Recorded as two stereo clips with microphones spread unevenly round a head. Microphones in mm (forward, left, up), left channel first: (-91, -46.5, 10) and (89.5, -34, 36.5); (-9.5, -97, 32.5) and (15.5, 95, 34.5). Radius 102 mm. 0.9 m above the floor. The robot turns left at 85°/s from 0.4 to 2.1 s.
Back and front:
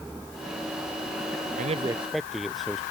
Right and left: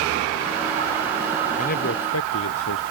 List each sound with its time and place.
1.6 s a man speaking: 40° right; by 2.8 s 85° right